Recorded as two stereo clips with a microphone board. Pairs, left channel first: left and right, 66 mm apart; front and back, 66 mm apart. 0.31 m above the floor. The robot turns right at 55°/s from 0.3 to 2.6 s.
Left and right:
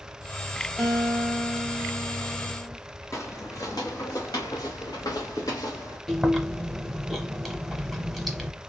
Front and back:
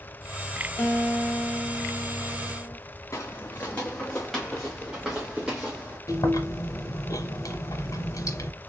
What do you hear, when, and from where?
0.8 s a guitar: 10° right, 1.5 m; by 2.8 s 90° left, 1.5 m
3.1 s footsteps: 45° left, 1.0 m; by 6.0 s 105° left, 1.9 m
6.1 s chewing: straight ahead, 0.8 m